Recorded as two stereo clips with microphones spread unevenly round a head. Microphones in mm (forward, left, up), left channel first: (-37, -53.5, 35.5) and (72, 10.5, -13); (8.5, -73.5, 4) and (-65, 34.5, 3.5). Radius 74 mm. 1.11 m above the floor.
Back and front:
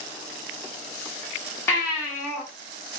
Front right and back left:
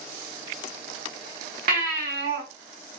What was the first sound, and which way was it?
A baby crying, 135° left.